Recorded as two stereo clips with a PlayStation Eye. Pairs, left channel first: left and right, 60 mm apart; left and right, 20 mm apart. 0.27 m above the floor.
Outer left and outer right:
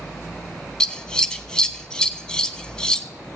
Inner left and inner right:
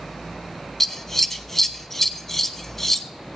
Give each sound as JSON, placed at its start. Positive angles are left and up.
{"t": 0.8, "sound": "scissors", "side_deg": 15, "distance_m": 0.7}